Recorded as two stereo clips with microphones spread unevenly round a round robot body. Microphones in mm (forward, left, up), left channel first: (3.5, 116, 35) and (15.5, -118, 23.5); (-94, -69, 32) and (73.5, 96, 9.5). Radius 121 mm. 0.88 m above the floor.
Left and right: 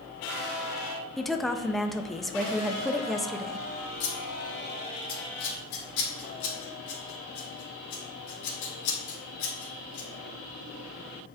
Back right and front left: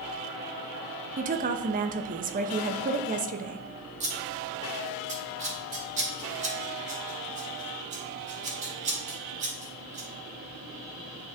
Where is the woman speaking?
Straight ahead, 0.6 m.